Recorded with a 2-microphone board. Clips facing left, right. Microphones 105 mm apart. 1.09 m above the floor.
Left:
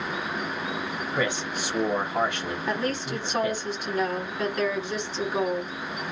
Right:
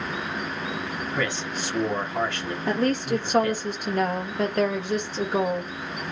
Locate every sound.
1.1 s a man speaking: 15° left (ahead or behind), 1.0 m
2.7 s a woman speaking: 55° right (ahead or behind), 1.1 m